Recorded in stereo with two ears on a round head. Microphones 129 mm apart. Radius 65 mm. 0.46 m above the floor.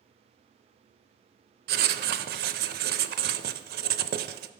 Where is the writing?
75° right (ahead or behind), 0.5 m.